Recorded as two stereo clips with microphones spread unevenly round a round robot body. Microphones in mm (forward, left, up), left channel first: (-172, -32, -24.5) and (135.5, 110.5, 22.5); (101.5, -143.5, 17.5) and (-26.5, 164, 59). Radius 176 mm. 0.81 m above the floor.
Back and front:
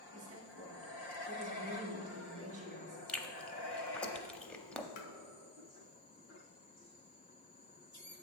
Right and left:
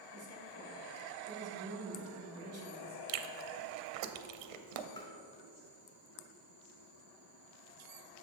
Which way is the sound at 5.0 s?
145° right.